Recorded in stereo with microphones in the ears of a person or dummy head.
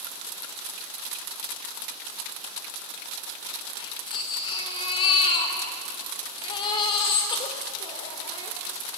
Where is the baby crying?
25° left (ahead or behind), 3 m.